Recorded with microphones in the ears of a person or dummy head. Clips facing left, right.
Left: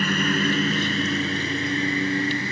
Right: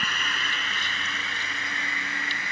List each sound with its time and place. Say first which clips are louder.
0.0 s a lawn mower: left 14 dB; 35° left (ahead or behind); by 2.5 s 30° left (ahead or behind)